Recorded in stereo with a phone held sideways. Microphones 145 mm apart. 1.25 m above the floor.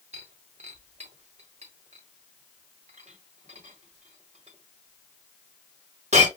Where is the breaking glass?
50° right (ahead or behind), 1.4 m.